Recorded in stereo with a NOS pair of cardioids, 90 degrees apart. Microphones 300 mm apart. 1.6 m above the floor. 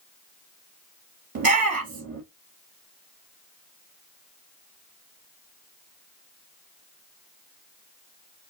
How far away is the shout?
About 2.5 m.